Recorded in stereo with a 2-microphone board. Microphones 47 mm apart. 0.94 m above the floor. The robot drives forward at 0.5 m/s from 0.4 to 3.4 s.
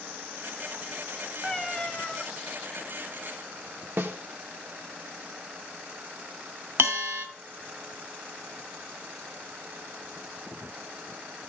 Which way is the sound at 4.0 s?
55° right (ahead or behind).